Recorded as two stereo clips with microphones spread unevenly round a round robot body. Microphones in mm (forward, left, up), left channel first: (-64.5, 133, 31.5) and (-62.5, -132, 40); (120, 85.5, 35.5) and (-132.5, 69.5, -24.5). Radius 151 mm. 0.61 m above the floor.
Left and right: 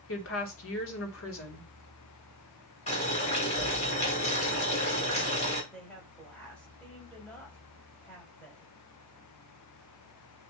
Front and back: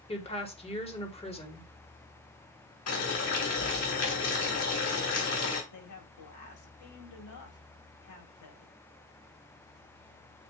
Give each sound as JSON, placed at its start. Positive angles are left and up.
{"t": 0.1, "sound": "a woman speaking", "azimuth_deg": 75, "distance_m": 2.0}
{"t": 2.9, "sound": "boiling", "azimuth_deg": 25, "distance_m": 3.0}
{"t": 5.7, "sound": "a woman speaking", "azimuth_deg": 5, "distance_m": 2.5}